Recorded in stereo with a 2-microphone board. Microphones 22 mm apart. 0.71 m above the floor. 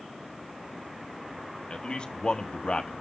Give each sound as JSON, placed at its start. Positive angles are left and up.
{"t": 1.7, "sound": "a man speaking", "side_deg": 50, "distance_m": 1.1}